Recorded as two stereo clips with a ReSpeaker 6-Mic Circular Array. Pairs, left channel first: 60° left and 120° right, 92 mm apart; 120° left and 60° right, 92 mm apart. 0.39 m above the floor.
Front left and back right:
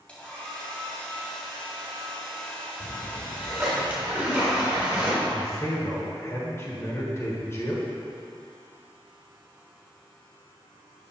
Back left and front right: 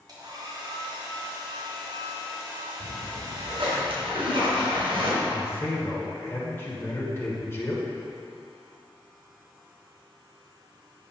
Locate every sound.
0.1 s a hair dryer: 20° right, 2 m
2.8 s a splash: 45° right, 2.5 m
5.3 s a man speaking: 85° left, 1.6 m